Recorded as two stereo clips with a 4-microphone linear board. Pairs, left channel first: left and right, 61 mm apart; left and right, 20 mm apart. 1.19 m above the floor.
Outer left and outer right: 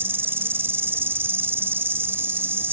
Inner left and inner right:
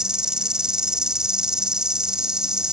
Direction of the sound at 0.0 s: 40° right (ahead or behind).